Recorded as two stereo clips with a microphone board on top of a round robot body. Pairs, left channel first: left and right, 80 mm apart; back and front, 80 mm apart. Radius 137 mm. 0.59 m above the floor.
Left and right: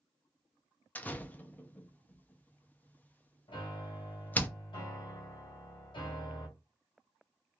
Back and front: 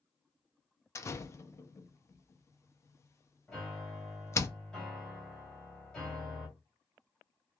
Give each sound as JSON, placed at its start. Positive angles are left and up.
{"t": 0.9, "sound": "a door slam", "azimuth_deg": 150, "distance_m": 0.7}
{"t": 3.5, "sound": "a piano", "azimuth_deg": 95, "distance_m": 1.5}